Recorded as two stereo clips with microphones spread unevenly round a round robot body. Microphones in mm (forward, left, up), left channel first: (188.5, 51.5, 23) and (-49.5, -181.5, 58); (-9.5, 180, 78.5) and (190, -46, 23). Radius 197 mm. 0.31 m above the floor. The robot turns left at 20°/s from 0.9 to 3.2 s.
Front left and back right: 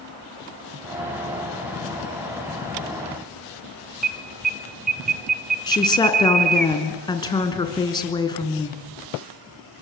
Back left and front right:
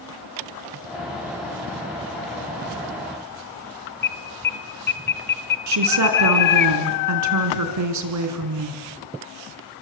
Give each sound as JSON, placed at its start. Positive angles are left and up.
{"t": 4.0, "sound": "an alarm", "azimuth_deg": 170, "distance_m": 1.0}
{"t": 5.7, "sound": "a woman speaking", "azimuth_deg": -30, "distance_m": 3.5}